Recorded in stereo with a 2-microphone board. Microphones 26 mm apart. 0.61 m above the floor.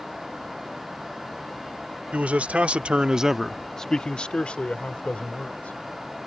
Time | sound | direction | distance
2.1 | a man speaking | 70° right (ahead or behind) | ?